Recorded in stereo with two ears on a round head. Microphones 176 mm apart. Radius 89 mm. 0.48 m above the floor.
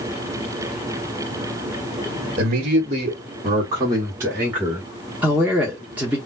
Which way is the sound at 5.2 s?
10° right (ahead or behind).